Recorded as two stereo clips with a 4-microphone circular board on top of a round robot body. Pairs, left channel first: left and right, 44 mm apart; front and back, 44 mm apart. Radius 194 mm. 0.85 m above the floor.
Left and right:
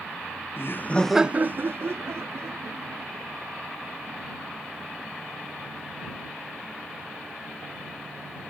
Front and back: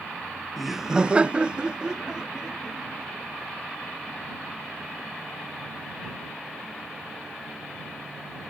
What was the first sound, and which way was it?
Laughter, 95° left.